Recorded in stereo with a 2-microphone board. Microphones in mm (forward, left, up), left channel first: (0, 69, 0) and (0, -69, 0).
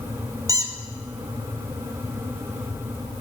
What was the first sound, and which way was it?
A squeak, 25° right (ahead or behind).